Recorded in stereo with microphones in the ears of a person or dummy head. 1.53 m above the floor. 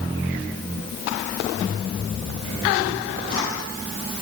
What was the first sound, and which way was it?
Only background noise.